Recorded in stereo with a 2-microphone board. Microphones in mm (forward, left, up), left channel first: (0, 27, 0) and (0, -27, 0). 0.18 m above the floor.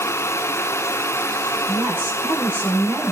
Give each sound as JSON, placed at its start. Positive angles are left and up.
{"t": 1.7, "sound": "a woman speaking", "side_deg": -40, "distance_m": 8.0}